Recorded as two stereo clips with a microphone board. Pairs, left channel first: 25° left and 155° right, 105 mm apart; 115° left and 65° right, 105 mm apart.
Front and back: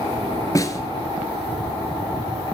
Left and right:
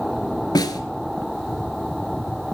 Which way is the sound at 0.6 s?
70° left.